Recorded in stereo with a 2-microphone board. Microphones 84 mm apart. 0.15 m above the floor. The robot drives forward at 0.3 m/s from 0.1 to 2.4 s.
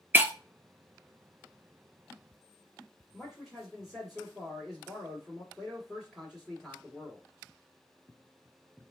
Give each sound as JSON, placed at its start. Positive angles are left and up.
{"t": 0.1, "sound": "breaking glass", "side_deg": -25, "distance_m": 0.5}
{"t": 3.1, "sound": "a man speaking", "side_deg": 0, "distance_m": 1.9}